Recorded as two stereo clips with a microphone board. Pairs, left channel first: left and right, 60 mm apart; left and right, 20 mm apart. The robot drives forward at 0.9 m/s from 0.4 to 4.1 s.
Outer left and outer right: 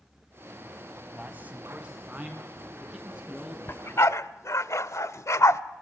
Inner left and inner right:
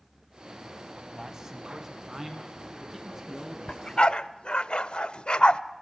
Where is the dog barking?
40° left (ahead or behind), 0.8 m; by 5.6 s 65° left (ahead or behind), 0.6 m.